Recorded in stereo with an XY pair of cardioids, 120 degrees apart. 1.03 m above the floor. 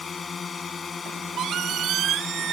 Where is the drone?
30° left.